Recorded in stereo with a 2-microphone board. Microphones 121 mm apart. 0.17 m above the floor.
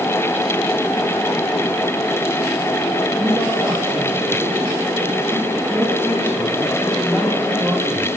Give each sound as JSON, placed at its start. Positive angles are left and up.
{"t": 3.2, "sound": "a man speaking", "side_deg": -15, "distance_m": 7.0}